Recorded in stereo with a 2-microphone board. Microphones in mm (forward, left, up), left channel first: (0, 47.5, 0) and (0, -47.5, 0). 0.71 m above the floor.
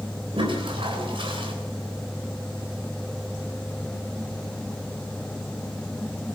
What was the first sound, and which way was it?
A toilet flushing, 70° right (ahead or behind).